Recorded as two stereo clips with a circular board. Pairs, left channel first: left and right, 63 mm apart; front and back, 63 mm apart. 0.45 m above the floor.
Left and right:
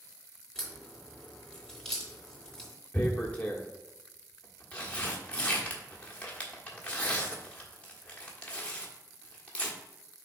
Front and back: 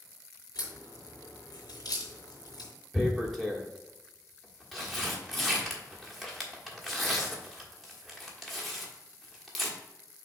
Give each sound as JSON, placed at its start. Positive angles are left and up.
{"t": 0.6, "sound": "a crack", "azimuth_deg": 10, "distance_m": 3.0}
{"t": 2.9, "sound": "tearing paper", "azimuth_deg": 90, "distance_m": 1.4}